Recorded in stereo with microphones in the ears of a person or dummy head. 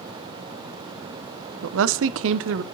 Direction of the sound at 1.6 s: 80° right.